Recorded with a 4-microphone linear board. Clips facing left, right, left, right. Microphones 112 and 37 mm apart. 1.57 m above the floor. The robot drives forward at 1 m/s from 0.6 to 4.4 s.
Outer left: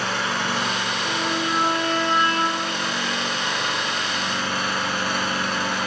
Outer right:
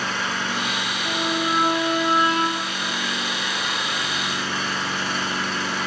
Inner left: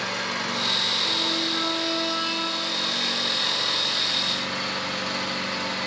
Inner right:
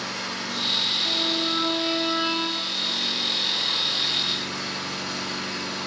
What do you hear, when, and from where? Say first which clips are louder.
0.0 s an engine running: outer left 2 dB, inner left 3 dB; 80° left, 5.5 m; by 5.9 s 60° left (ahead or behind), 6.5 m
1.1 s a violin: outer right 2 dB, even; 25° right (ahead or behind), 1.4 m; by 2.7 s 10° right (ahead or behind), 3 m